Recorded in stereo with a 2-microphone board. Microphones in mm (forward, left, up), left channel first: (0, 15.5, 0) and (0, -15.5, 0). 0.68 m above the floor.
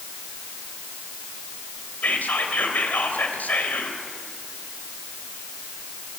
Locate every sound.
2.0 s whispering: 70° left (ahead or behind), 3 m